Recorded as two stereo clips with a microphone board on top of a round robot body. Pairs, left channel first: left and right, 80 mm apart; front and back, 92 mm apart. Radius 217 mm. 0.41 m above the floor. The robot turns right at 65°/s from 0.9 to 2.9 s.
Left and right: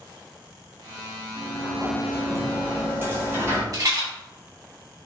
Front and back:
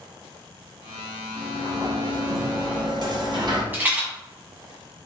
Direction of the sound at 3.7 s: 115° right.